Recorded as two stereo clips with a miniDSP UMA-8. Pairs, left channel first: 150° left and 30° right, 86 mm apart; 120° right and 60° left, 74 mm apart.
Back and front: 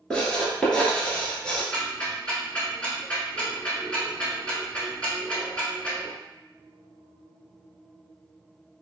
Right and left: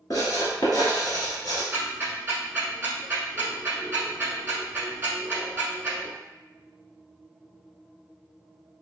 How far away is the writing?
About 1.0 m.